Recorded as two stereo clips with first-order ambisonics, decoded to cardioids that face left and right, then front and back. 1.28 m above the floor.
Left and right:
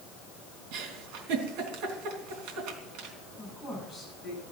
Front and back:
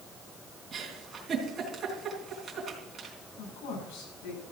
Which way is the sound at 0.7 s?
110° right.